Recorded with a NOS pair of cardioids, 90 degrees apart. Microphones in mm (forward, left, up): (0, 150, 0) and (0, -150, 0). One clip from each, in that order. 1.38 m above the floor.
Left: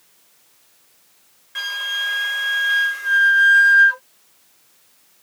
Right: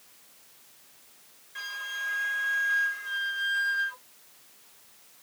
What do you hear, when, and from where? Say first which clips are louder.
1.6 s a flute: left 11 dB; 65° left